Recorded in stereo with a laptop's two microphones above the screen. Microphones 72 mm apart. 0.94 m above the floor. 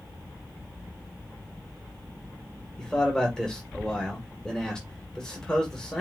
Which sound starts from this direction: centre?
A man speaking, at 2.8 s.